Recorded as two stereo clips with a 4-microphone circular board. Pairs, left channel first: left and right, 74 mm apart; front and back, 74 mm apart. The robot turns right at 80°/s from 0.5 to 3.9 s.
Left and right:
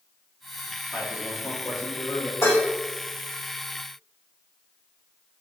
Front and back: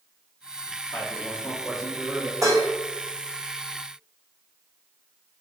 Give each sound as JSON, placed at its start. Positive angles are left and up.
{"t": 0.9, "sound": "a man speaking", "azimuth_deg": 30, "distance_m": 0.9}
{"t": 2.4, "sound": "dishes clattering", "azimuth_deg": 140, "distance_m": 0.9}